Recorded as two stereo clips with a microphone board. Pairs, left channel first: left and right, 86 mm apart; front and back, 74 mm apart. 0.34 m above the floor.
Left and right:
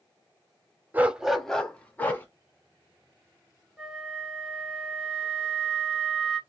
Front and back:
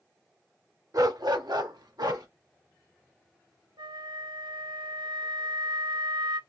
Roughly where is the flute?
Behind.